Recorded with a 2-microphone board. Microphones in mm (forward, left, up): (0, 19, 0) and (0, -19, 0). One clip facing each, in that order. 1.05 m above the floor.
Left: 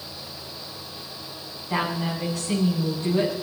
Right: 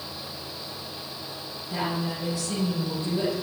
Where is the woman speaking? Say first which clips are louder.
Left 3 dB; 65° left (ahead or behind), 8 m.